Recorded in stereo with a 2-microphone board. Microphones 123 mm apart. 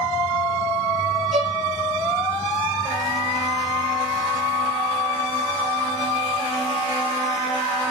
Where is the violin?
60° right (ahead or behind), 0.6 m.